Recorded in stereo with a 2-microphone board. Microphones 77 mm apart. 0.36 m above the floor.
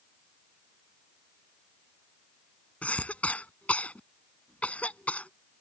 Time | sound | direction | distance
2.8 | a cough | 15° left (ahead or behind) | ?